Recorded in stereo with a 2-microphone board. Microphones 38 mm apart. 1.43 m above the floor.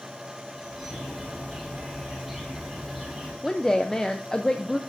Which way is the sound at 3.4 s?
20° left (ahead or behind).